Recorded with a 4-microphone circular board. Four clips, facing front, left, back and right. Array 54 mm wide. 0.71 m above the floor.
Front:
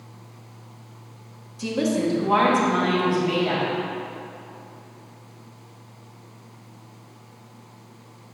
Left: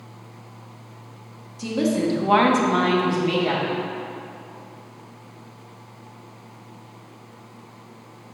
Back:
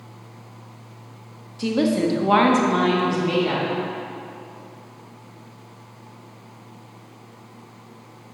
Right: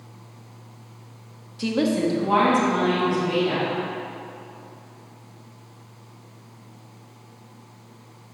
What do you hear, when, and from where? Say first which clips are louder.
1.6 s a woman speaking: even, back 3 dB; 120° right, 0.9 m; by 3.7 s 115° left, 2.5 m